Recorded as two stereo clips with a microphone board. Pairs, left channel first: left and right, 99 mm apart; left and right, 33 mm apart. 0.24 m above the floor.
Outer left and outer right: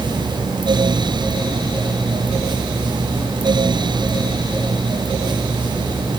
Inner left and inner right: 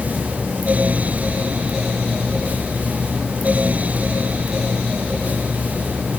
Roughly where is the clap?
No clap in this recording.